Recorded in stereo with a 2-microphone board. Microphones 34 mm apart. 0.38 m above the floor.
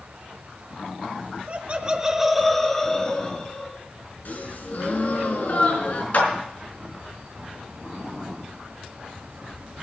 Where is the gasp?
65° left (ahead or behind), 1.9 m.